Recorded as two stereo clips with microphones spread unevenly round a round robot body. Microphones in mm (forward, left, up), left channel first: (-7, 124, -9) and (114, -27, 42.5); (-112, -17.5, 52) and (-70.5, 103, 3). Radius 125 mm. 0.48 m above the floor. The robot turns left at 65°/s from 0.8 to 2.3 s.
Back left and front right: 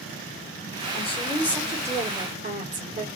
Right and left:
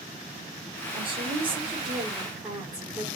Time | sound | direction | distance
0.9 | a woman speaking | 90° left | 1.9 m